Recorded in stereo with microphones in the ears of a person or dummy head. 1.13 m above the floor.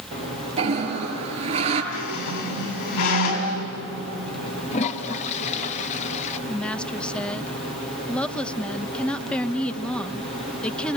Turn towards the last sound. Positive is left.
turn(degrees=5)  # may be behind; listen again after turning